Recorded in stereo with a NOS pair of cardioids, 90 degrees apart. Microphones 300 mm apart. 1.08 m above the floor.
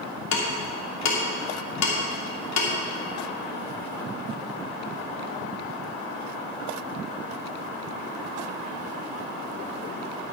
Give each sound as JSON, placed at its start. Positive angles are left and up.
{"t": 0.3, "sound": "ticking", "azimuth_deg": 60, "distance_m": 2.5}